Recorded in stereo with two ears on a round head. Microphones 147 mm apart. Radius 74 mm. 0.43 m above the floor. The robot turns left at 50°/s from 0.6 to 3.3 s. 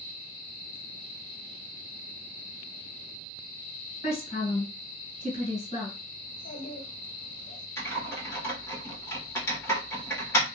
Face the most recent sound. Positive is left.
turn(degrees=15)  # may be behind; listen again after turning